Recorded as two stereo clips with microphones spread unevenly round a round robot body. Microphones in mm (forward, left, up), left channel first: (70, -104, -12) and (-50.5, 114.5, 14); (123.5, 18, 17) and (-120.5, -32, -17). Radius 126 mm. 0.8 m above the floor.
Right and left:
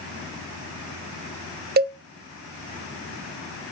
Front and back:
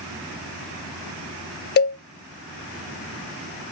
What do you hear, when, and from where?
1.8 s a cowbell: 65° left, 0.6 m